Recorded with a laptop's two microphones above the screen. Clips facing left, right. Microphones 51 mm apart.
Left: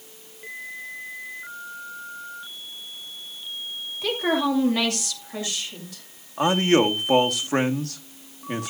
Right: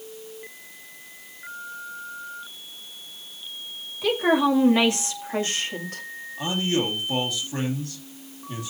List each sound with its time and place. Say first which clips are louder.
4.0 s a woman speaking: right 3 dB; centre (ahead or behind), 2.5 m; by 6.0 s 55° right (ahead or behind), 2.5 m
6.4 s a man speaking: left 6 dB; 70° left (ahead or behind), 2.0 m